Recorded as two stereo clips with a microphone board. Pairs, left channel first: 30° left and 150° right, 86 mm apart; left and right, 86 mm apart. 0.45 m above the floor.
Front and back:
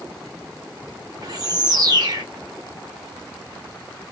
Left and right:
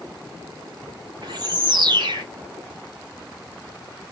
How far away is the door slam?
No door slam in this recording.